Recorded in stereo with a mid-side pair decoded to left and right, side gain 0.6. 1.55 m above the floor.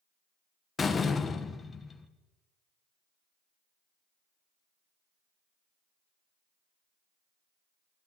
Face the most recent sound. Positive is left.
turn(degrees=25)